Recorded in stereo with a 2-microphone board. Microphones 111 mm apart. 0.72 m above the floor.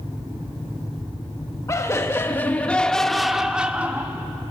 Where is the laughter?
30° left (ahead or behind), 1.3 m; by 4.2 s 20° right (ahead or behind), 1.3 m.